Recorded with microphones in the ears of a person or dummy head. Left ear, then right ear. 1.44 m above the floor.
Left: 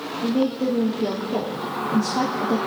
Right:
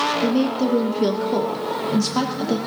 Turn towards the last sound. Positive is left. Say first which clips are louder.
# right 2 dB
turn(degrees=-25)  # may be behind; listen again after turning